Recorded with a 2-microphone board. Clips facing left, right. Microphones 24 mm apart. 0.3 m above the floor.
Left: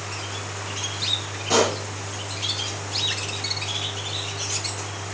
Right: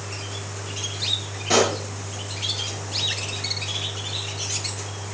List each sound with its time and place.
1.5 s a pop: 20° right (ahead or behind), 4.5 m